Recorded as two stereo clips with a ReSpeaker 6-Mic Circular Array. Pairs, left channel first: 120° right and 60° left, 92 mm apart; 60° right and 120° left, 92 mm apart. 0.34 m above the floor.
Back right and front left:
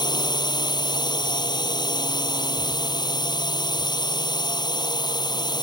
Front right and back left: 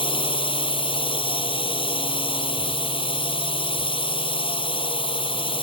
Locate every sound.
0.0 s a drone: 80° right